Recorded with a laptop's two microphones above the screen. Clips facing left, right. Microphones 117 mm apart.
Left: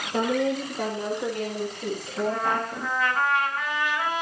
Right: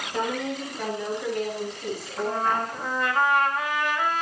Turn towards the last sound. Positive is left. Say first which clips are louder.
# even
turn(degrees=-50)  # may be behind; listen again after turning